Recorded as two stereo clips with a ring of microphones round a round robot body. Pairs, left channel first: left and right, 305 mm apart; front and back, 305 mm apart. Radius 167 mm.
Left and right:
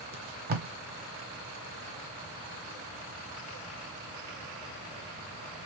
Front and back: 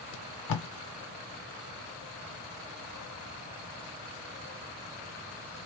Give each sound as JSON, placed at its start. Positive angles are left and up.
{"t": 0.1, "sound": "tape being pulled", "azimuth_deg": -30, "distance_m": 0.8}